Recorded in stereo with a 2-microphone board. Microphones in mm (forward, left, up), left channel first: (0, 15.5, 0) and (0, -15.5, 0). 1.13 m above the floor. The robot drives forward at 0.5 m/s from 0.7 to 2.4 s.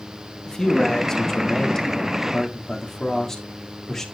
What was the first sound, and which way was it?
A man speaking, 20° left (ahead or behind).